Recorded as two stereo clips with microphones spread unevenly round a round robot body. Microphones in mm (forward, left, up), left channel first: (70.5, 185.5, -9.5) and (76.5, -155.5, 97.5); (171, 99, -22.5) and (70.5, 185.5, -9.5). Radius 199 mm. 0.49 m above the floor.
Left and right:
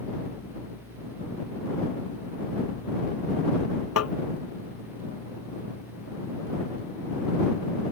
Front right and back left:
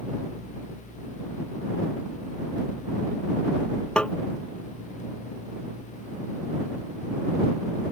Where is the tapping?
45° left.